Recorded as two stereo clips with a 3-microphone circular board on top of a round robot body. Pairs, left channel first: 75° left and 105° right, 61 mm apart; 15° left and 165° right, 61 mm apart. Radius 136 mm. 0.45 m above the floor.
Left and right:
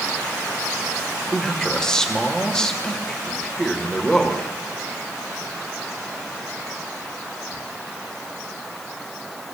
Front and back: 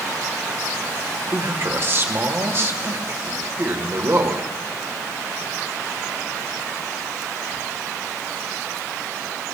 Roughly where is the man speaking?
Behind left.